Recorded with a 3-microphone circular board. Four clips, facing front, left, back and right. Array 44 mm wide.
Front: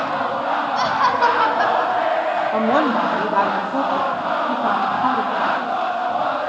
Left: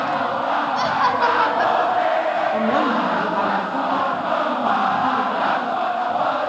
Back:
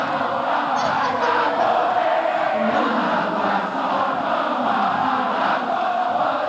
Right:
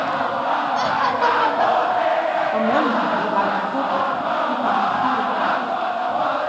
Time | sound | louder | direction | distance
0.8 | laughter | left 2 dB, front 3 dB | 15° left | 1.7 m
2.5 | a woman speaking | right 2 dB, front 2 dB | 5° right | 8 m